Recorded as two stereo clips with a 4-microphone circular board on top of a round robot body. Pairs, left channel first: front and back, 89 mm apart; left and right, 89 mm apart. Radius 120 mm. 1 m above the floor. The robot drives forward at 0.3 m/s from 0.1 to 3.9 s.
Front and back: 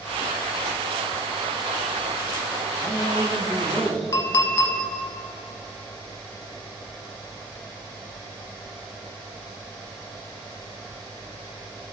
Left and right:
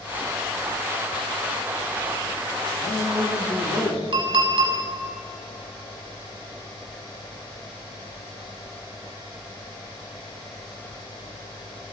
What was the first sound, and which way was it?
A man speaking, 45° left.